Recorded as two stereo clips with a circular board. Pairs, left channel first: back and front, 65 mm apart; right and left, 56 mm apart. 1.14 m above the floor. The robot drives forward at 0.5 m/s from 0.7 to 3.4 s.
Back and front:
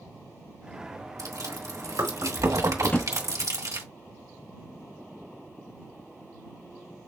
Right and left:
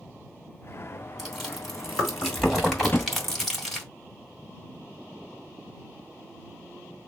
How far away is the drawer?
About 0.6 m.